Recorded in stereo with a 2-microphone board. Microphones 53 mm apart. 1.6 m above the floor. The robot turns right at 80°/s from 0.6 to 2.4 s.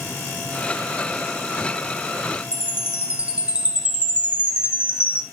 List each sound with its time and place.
2.5 s a chime: 20° right (ahead or behind), 2.5 m